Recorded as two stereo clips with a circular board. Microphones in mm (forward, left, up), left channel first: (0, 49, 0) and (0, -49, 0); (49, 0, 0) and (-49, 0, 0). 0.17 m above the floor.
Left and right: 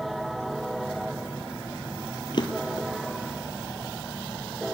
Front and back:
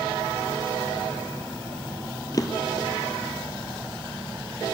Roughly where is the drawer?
Ahead left.